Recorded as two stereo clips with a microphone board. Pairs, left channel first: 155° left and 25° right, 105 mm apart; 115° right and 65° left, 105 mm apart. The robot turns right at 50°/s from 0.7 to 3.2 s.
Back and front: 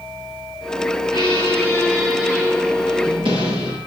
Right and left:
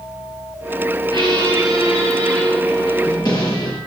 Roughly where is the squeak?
Behind.